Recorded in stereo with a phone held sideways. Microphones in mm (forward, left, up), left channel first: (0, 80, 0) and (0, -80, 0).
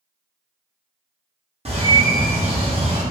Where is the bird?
40° right (ahead or behind), 0.7 m.